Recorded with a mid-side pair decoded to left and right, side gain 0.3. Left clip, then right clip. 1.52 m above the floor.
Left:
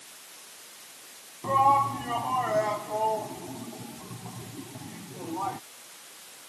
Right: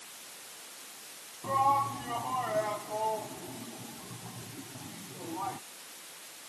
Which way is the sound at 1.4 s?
55° left.